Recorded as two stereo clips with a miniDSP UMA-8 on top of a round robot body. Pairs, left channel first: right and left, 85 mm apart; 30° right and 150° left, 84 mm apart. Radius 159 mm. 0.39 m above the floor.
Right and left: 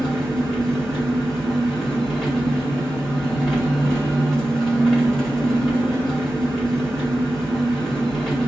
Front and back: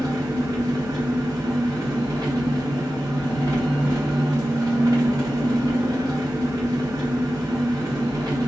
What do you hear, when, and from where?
0.0 s an engine running: 175° right, 1.9 m